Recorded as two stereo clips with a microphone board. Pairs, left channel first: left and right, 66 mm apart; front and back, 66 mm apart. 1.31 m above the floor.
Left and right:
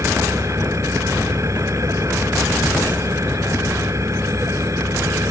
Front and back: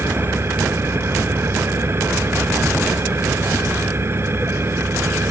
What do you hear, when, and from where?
0.0 s an engine running: 130° right